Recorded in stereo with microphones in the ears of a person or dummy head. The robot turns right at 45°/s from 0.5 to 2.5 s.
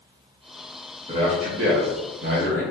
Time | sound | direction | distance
1.1 | a man speaking | 145° right | 0.9 m